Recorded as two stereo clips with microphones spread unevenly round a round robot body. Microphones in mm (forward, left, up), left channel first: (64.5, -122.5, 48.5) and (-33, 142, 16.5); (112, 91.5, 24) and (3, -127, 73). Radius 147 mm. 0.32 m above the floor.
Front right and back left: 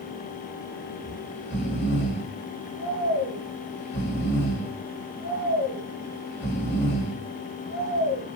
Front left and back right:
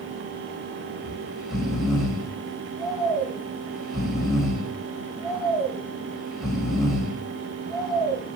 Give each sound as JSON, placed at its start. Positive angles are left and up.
{"t": 1.0, "sound": "snoring", "azimuth_deg": -20, "distance_m": 1.6}